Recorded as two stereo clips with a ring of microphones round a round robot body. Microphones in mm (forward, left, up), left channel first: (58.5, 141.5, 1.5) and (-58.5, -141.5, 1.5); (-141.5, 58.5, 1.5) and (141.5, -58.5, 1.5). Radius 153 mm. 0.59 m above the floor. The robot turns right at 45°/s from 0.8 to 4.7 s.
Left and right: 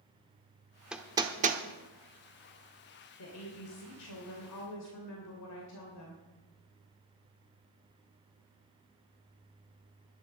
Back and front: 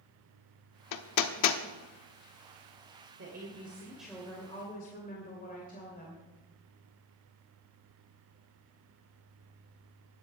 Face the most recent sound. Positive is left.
turn(degrees=95)